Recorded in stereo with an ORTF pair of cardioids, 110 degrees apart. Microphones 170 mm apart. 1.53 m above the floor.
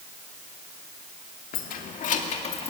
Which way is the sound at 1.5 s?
60° left.